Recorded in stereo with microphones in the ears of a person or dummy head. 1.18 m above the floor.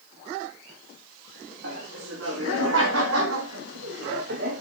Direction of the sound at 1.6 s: 75° right (ahead or behind).